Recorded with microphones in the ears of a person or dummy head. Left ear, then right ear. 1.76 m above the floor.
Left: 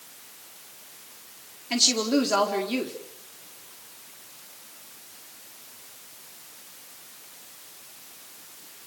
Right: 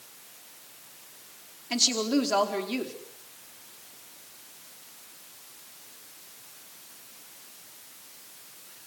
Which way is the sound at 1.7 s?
5° right (ahead or behind).